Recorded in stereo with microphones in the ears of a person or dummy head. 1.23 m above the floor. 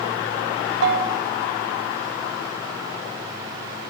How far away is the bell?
About 3 m.